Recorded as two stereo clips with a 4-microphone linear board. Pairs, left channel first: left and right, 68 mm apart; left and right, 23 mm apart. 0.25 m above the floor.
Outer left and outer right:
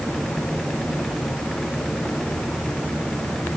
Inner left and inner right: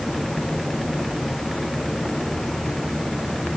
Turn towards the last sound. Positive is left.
No sound to turn to.